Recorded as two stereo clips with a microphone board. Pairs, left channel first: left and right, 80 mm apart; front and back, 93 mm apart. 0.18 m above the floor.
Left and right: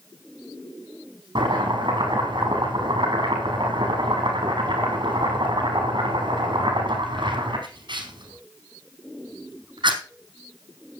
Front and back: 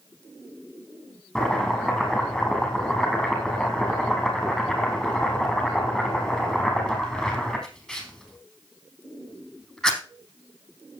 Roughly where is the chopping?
Right.